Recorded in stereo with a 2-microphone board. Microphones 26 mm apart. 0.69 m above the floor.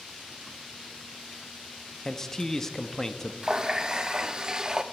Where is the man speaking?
15° left (ahead or behind), 0.7 m.